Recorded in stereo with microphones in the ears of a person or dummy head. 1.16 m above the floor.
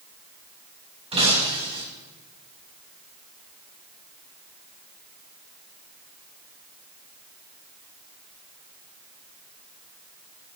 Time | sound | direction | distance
1.1 | breaking glass | 30° right (ahead or behind) | 4.5 m